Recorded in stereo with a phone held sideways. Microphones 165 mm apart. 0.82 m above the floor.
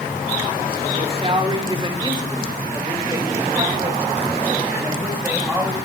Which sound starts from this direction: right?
A man speaking, at 1.0 s.